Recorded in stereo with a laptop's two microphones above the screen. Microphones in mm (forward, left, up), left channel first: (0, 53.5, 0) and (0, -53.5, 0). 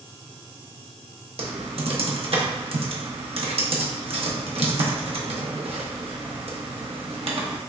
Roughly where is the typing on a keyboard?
Right.